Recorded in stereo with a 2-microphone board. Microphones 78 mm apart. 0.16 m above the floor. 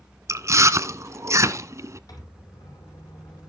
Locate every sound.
0.3 s chewing: 45° right (ahead or behind), 0.9 m
2.1 s a microwave: 55° left (ahead or behind), 6 m